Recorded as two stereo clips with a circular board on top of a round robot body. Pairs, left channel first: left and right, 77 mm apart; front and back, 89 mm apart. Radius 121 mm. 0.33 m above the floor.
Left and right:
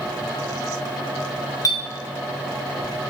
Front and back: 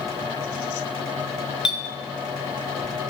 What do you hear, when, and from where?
1.6 s a clink: 100° left, 0.6 m